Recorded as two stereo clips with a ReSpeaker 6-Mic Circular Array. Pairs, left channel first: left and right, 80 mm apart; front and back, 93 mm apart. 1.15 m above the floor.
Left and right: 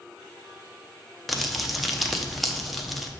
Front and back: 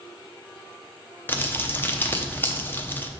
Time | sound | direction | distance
1.3 | crumpling | straight ahead | 0.7 m